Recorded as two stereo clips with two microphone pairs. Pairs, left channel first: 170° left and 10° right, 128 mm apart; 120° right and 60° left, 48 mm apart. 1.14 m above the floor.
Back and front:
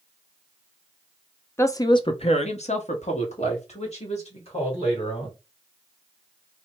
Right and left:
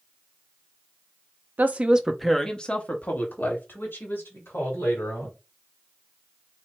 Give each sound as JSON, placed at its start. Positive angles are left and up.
{"t": 1.6, "sound": "a woman speaking", "azimuth_deg": 105, "distance_m": 0.7}